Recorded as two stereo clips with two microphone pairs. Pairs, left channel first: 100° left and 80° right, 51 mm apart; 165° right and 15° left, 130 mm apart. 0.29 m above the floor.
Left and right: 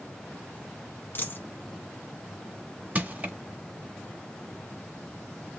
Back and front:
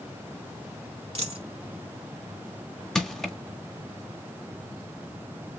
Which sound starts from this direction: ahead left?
A dropped coin, at 1.1 s.